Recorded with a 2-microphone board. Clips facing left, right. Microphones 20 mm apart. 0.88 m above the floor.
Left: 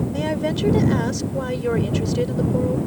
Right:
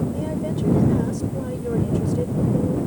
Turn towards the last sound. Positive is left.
turn(degrees=55)  # may be behind; listen again after turning